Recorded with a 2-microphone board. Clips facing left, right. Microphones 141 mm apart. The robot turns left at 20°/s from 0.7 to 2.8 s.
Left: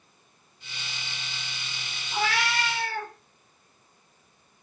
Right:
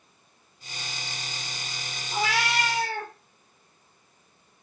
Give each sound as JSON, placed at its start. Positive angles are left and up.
{"t": 2.1, "sound": "a cat meowing", "side_deg": -20, "distance_m": 0.7}